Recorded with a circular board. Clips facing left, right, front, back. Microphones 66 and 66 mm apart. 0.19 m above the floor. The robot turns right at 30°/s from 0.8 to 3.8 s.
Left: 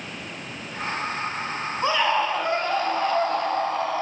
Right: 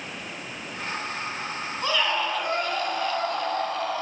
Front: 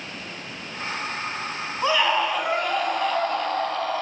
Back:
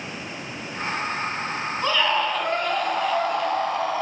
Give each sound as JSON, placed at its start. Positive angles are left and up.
{"t": 1.8, "sound": "a scream", "azimuth_deg": 60, "distance_m": 1.1}